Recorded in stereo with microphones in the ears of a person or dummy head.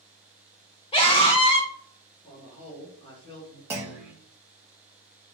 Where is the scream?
30° left (ahead or behind), 0.9 m.